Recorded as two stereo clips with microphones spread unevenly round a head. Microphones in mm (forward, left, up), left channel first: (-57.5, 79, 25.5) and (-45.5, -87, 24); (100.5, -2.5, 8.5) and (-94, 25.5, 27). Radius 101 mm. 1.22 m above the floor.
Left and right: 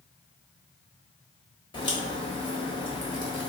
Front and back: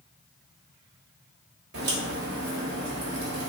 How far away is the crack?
About 1.1 m.